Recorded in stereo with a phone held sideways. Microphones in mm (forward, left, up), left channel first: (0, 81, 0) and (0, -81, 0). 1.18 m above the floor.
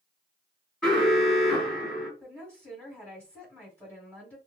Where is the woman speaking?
10° left (ahead or behind), 1.4 m.